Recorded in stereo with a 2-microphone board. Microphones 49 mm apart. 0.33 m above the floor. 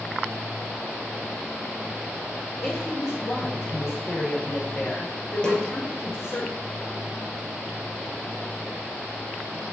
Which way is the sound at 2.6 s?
70° left (ahead or behind).